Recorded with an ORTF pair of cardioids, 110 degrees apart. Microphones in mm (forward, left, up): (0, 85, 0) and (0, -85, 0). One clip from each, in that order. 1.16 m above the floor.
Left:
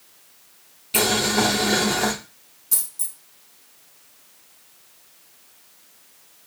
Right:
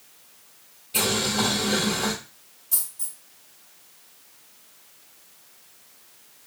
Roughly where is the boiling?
Ahead left.